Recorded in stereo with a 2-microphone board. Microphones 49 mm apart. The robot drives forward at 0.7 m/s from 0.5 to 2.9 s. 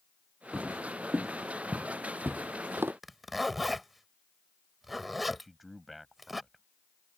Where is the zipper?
Centre (ahead or behind).